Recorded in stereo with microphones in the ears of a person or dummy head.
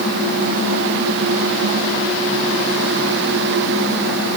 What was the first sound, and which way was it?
Only background noise.